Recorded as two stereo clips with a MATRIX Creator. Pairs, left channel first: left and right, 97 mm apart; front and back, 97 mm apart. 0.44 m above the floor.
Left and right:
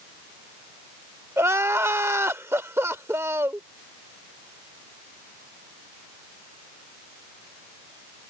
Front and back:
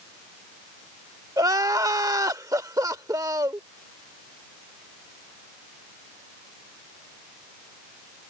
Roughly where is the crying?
Behind right.